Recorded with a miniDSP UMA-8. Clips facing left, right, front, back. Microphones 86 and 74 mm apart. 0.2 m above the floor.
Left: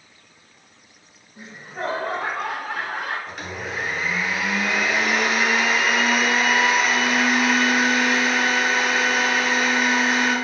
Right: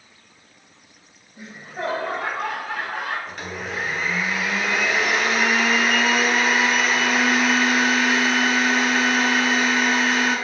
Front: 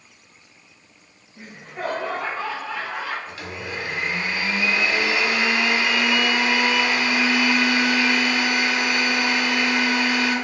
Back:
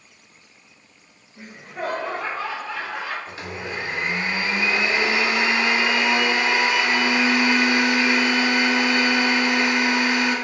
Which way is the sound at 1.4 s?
90° left.